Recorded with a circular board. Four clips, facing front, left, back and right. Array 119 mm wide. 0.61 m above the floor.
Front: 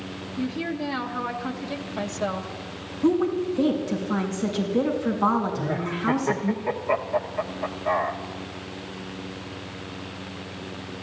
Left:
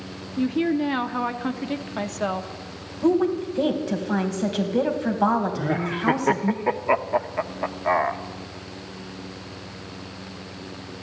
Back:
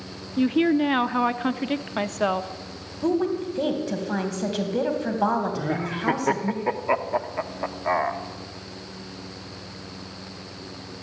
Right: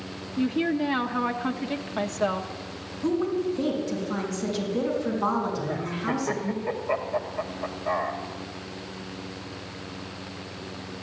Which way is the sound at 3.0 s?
125° left.